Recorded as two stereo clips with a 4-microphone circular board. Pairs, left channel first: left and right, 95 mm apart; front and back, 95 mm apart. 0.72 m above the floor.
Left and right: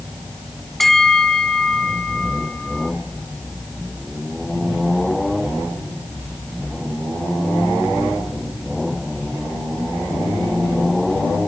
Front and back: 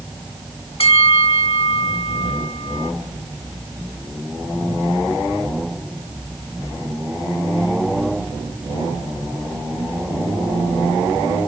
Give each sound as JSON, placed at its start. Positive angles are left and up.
{"t": 0.8, "sound": "a bell", "azimuth_deg": 5, "distance_m": 1.4}